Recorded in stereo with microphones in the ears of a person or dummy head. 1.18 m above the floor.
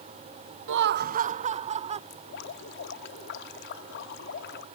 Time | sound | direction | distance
0.7 | laughter | 65° right (ahead or behind) | ?
2.1 | dripping | 65° left (ahead or behind) | ?